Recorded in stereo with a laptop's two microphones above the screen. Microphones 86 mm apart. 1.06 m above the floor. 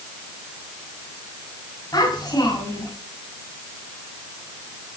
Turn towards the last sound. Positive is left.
turn(degrees=45)  # may be behind; listen again after turning